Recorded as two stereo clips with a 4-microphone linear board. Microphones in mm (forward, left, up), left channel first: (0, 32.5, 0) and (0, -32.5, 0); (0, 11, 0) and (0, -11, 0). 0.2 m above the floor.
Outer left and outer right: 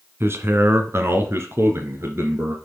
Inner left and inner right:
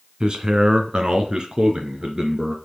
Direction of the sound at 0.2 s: 40° right (ahead or behind).